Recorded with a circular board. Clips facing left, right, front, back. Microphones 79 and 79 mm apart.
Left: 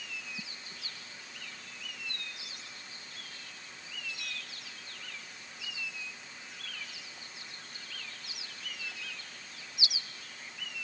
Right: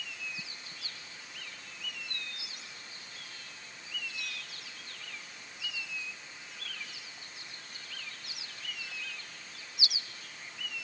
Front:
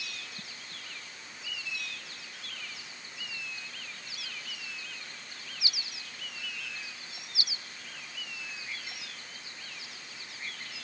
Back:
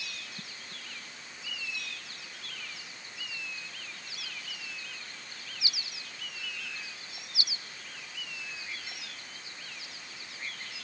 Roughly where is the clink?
No clink in this recording.